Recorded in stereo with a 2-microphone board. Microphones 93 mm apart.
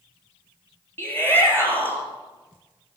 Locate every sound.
1.0 s a shout: 20° left (ahead or behind), 5 m